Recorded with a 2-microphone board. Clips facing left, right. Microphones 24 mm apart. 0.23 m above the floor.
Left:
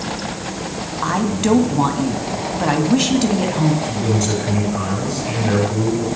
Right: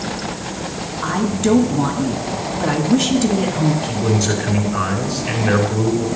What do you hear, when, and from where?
1.0 s a woman speaking: 30° left (ahead or behind), 1.3 m
3.8 s a man speaking: 15° right (ahead or behind), 2.5 m